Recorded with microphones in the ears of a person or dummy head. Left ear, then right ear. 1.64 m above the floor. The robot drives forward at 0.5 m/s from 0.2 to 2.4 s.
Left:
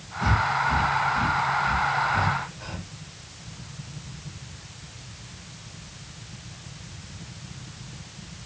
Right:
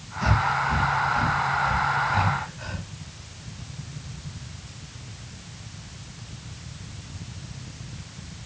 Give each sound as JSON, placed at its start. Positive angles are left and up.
{"t": 0.2, "sound": "breathing", "side_deg": -20, "distance_m": 1.5}